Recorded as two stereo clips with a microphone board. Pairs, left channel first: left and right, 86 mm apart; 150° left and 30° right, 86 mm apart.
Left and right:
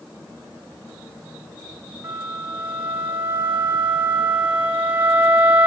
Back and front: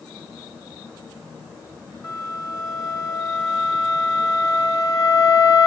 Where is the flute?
165° right, 5 m.